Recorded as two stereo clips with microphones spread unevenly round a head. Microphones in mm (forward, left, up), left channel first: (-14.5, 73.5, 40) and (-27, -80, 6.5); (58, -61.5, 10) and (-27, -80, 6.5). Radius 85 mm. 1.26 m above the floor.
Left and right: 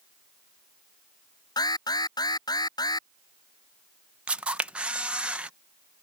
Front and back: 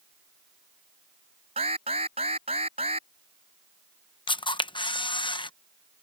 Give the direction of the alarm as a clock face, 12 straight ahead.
7 o'clock.